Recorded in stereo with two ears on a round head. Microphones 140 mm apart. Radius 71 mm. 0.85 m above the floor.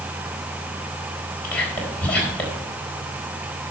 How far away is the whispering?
About 4 m.